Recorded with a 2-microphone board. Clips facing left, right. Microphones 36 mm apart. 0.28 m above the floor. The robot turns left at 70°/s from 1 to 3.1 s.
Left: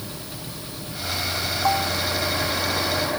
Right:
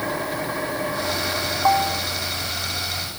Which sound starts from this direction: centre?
A bell, at 1.6 s.